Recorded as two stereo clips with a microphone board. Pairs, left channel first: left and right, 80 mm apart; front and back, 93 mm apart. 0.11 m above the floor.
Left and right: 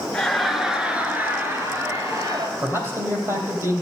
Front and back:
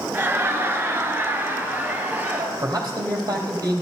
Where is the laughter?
160° left, 1.3 m; by 2.5 s 115° right, 2 m.